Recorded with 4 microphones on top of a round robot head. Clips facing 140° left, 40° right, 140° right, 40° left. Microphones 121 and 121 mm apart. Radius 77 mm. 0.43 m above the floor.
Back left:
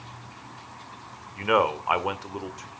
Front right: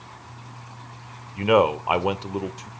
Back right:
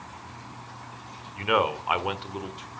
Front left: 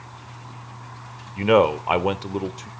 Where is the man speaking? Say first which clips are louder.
Front right 4 dB, front left 8 dB; 15° left, 1.4 m.